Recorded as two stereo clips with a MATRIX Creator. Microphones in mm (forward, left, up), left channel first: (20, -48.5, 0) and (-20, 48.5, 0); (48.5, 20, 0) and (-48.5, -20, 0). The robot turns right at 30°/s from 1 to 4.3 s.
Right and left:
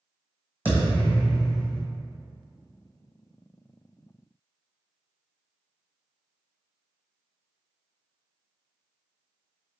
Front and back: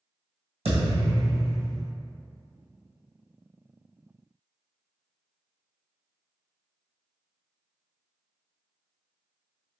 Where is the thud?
175° right, 1.7 m; by 1.8 s 150° right, 1.7 m.